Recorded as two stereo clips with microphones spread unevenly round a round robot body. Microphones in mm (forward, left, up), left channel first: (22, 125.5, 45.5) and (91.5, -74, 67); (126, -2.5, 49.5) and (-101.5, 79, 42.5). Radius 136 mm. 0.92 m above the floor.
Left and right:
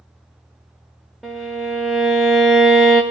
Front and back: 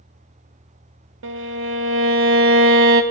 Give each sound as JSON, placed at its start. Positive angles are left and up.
{"t": 1.2, "sound": "a violin", "azimuth_deg": -155, "distance_m": 0.5}